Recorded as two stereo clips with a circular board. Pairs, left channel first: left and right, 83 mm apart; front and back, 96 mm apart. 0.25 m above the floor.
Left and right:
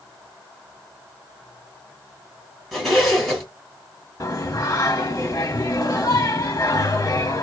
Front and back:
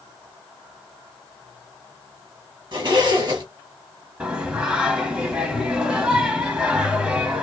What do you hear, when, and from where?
2.7 s a zipper: 175° left, 1.3 m
4.2 s singing: 105° left, 1.0 m